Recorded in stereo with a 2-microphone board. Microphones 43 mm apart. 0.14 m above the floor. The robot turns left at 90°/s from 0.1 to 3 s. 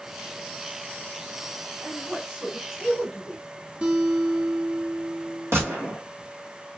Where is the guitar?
25° right (ahead or behind), 0.8 m.